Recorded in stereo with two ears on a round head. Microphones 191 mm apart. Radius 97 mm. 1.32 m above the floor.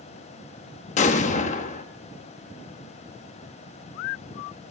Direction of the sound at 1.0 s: 35° left (ahead or behind).